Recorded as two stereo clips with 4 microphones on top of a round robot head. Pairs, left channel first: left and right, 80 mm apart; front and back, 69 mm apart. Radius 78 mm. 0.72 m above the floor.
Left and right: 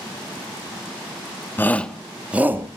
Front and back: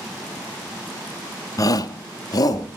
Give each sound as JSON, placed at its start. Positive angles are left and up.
{"t": 1.6, "sound": "a shout", "azimuth_deg": 30, "distance_m": 1.3}